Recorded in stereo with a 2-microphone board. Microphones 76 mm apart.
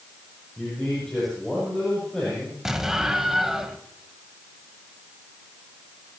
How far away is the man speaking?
About 8.5 m.